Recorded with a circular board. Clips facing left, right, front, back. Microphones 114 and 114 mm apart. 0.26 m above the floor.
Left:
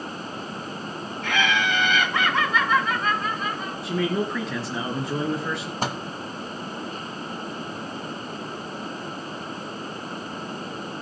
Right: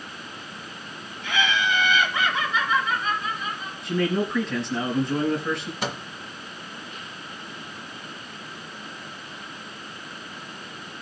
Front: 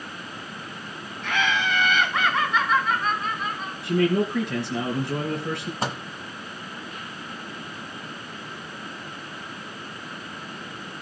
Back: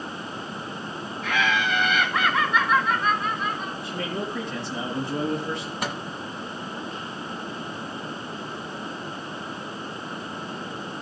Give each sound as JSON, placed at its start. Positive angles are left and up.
{"t": 1.2, "sound": "laughter", "azimuth_deg": 90, "distance_m": 3.0}
{"t": 3.8, "sound": "a man speaking", "azimuth_deg": 5, "distance_m": 3.5}
{"t": 5.8, "sound": "a microwave", "azimuth_deg": 50, "distance_m": 1.4}